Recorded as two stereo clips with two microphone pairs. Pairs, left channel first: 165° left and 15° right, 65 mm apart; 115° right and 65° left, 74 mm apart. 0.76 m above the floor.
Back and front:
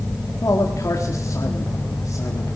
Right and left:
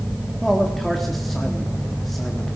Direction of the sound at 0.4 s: 160° left.